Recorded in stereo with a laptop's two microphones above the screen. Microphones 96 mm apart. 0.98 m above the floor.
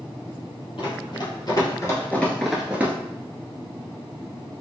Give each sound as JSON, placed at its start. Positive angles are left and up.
{"t": 0.8, "sound": "running footsteps", "side_deg": 60, "distance_m": 1.8}